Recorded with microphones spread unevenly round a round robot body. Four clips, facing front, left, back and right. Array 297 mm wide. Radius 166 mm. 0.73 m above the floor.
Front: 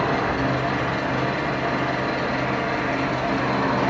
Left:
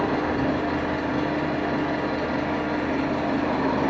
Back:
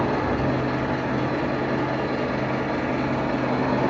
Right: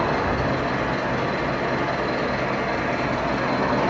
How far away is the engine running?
About 1.7 m.